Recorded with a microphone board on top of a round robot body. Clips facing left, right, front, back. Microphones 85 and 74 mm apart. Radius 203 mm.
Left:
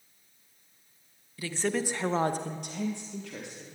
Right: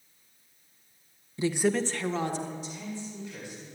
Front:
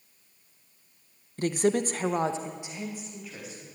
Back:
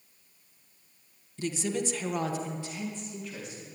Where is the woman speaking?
30° right, 1.2 m; by 3.6 s 90° left, 2.5 m.